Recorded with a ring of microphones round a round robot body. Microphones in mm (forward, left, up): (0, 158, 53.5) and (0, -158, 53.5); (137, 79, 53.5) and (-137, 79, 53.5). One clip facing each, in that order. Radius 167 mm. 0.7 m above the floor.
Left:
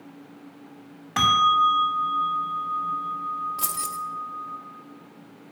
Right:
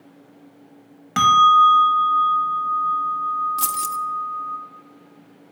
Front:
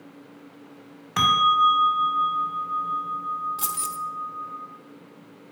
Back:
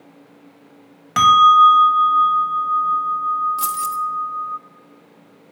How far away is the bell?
About 1.4 m.